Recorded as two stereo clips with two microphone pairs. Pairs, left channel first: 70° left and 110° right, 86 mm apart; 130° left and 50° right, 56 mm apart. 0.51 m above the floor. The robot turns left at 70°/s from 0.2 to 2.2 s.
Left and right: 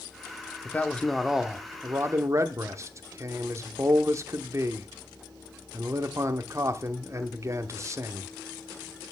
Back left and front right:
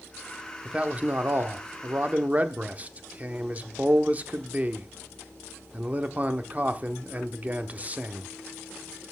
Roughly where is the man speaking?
Ahead.